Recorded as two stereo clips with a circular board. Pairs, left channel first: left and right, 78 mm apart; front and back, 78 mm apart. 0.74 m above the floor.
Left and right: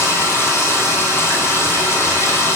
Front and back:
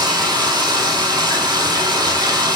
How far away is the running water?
About 2.5 m.